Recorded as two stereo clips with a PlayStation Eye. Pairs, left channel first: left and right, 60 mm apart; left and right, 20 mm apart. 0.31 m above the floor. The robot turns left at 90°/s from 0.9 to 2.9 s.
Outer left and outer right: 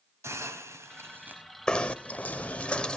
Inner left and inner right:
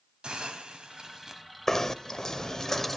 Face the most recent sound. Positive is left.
turn(degrees=15)  # may be behind; listen again after turning